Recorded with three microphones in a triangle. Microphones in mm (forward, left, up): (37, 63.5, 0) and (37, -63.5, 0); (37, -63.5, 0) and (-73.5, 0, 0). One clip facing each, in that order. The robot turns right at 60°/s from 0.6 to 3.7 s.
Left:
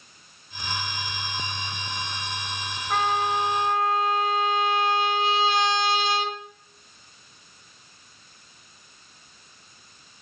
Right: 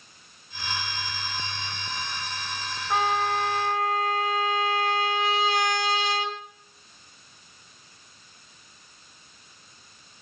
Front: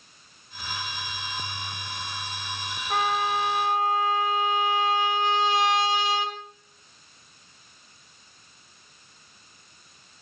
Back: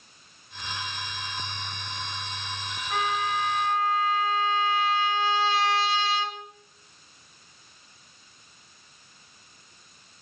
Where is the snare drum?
No snare drum in this recording.